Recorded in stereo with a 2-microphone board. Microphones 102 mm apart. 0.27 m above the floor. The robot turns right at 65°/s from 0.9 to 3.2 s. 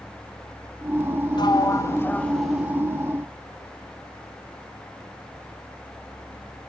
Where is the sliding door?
105° left, 0.7 m; by 2.8 s 160° right, 0.7 m.